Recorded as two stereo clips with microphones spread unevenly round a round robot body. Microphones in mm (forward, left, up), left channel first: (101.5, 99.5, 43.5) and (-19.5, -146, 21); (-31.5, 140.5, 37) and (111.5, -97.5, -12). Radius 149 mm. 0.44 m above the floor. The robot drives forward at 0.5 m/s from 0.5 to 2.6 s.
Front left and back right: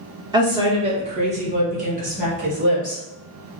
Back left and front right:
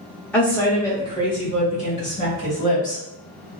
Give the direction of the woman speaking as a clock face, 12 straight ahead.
4 o'clock.